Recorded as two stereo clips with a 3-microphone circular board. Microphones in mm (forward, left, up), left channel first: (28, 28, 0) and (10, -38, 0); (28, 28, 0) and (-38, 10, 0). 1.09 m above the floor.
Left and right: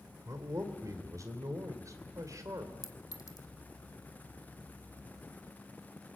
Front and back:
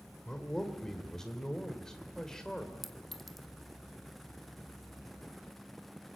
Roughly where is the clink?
Left.